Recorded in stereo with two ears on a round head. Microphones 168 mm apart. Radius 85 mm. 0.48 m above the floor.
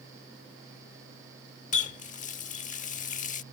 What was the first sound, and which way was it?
A running tap, 40° left (ahead or behind).